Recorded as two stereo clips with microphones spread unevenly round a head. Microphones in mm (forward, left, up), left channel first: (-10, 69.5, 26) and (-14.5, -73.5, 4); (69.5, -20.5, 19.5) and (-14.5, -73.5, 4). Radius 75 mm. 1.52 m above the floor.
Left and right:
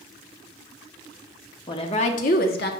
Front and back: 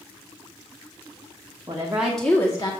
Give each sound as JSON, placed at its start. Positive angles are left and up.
{"t": 1.7, "sound": "a woman speaking", "azimuth_deg": 145, "distance_m": 1.3}